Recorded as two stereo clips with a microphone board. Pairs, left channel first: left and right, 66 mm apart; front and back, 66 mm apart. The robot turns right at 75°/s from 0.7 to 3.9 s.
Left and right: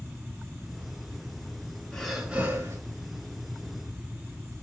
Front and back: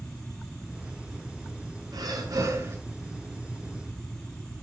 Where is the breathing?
165° left, 4.5 m; by 2.8 s 130° right, 4.5 m.